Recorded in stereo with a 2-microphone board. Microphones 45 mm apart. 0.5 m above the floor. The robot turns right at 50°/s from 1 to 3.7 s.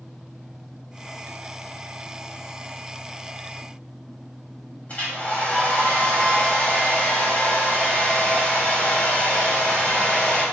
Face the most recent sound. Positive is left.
turn(degrees=30)  # may be behind; listen again after turning